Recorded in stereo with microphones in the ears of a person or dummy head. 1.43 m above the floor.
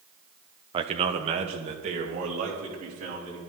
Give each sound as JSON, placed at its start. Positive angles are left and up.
{"t": 0.7, "sound": "a man speaking", "side_deg": -25, "distance_m": 1.0}